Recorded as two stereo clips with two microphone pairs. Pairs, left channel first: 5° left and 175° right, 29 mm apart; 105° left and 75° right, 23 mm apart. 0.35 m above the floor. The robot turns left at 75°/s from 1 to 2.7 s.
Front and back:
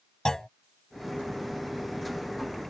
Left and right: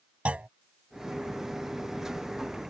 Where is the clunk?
60° right.